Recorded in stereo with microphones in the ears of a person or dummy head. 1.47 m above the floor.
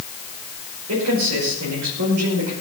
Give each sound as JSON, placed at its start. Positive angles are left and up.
{"t": 0.9, "sound": "a man speaking", "side_deg": -80, "distance_m": 5.5}